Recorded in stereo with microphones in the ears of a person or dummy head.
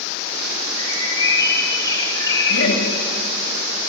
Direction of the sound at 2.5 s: 85° left.